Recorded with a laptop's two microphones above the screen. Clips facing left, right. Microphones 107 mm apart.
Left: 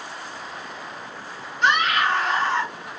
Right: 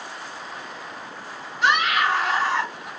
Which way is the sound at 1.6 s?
5° right (ahead or behind).